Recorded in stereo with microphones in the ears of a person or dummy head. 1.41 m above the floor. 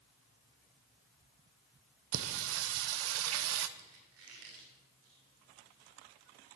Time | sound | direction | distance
2.1 | singing | 80° right | 0.7 m
3.8 | a squeak | 70° right (ahead or behind) | 2 m